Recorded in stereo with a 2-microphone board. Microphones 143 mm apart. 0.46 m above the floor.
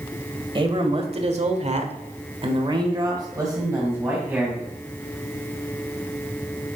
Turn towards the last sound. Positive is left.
turn(degrees=-15)  # may be behind; listen again after turning